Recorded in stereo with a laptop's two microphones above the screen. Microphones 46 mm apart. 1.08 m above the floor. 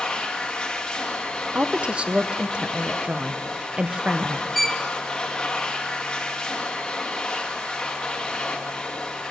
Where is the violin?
Centre (ahead or behind), 0.6 m.